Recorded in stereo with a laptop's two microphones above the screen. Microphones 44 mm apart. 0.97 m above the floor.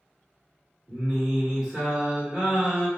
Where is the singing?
20° right (ahead or behind), 1.1 m.